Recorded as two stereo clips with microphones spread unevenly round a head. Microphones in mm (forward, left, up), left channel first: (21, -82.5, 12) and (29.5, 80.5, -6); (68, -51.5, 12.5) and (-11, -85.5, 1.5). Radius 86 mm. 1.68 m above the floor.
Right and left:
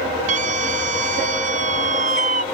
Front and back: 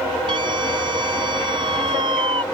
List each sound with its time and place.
0.3 s a scream: 140° left